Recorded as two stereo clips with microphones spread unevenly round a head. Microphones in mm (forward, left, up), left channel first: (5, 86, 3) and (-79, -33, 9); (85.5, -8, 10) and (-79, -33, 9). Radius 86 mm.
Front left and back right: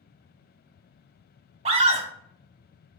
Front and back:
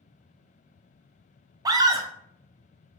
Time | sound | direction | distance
1.6 | a scream | 110° right | 0.5 m